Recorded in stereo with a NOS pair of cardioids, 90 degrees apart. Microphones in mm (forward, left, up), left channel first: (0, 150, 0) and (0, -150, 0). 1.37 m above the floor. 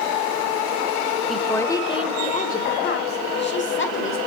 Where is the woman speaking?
Straight ahead, 0.8 m; by 4.2 s 40° left, 2.0 m.